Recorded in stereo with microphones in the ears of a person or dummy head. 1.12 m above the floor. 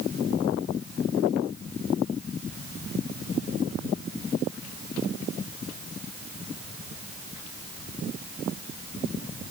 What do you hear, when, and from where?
Only background noise.